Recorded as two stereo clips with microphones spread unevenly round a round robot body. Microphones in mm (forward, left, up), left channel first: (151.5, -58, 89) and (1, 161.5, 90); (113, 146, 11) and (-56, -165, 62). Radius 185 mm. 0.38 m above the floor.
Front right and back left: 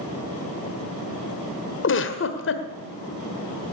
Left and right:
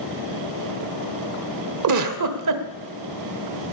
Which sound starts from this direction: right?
A giggle, at 1.8 s.